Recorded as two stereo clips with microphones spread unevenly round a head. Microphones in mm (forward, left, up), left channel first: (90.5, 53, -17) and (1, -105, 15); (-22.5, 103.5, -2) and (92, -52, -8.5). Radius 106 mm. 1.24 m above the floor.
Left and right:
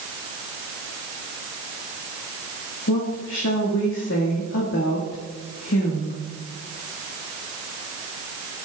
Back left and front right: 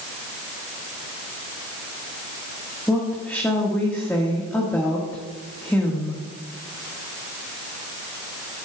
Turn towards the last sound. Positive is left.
turn(degrees=45)